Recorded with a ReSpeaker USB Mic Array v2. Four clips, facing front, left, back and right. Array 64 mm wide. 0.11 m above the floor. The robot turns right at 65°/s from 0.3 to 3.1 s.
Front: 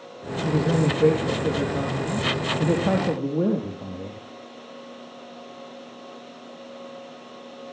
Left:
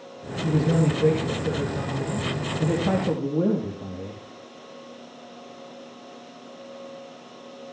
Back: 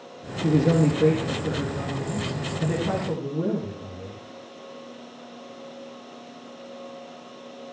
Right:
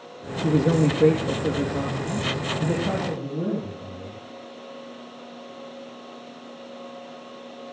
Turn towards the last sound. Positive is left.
turn(degrees=35)